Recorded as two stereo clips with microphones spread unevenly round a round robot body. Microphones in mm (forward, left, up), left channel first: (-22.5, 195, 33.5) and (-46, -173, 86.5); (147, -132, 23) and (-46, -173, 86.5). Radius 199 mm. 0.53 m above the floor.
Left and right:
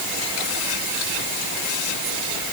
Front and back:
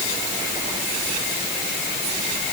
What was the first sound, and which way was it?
Only background noise.